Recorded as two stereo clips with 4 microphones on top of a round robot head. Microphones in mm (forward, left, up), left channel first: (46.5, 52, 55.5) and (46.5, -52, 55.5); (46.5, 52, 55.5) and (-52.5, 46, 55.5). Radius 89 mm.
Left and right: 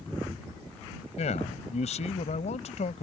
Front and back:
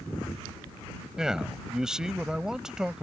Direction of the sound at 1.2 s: 100° left.